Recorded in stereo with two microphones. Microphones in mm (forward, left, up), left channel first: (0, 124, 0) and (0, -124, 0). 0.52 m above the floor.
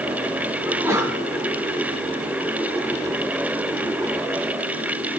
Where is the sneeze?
10° right (ahead or behind), 5 m.